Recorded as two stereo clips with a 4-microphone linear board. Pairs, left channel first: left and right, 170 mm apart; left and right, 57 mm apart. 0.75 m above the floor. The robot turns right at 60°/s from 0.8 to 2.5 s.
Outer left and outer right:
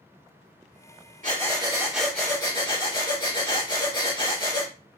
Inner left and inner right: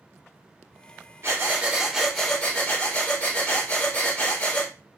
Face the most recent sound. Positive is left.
turn(degrees=30)